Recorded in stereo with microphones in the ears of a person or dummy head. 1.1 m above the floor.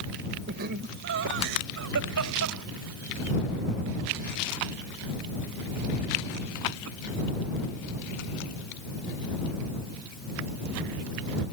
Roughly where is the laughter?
Right.